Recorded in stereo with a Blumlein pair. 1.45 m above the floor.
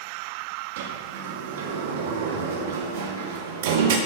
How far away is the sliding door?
About 1.7 m.